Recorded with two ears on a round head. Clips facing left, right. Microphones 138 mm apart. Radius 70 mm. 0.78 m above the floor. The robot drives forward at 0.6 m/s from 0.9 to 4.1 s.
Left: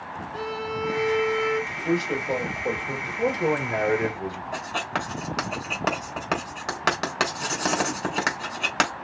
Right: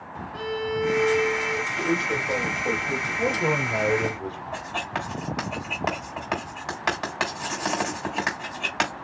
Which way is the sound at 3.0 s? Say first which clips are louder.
Left 3 dB; 15° left (ahead or behind).